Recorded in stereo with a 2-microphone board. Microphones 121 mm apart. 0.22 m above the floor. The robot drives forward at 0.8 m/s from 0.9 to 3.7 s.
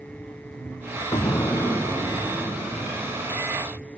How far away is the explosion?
About 0.6 m.